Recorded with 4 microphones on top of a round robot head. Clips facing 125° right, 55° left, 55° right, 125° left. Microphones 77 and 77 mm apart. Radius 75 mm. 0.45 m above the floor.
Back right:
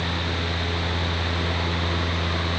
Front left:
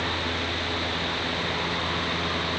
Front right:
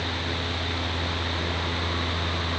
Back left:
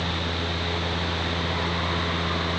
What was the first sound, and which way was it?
Only background noise.